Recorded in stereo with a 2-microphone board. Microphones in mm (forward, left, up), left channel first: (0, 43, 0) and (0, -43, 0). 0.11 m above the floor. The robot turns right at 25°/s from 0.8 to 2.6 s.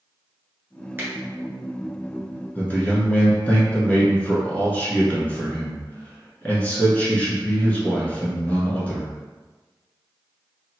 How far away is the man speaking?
About 1.1 m.